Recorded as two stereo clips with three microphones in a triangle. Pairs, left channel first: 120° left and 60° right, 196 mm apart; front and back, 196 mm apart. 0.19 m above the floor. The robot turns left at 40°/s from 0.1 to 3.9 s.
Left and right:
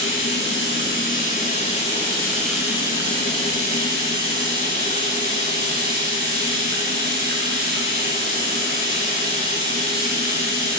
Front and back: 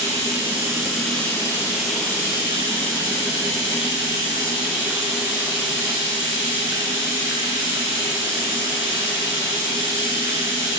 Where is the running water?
125° left, 9 m; by 10.8 s 25° right, 9 m.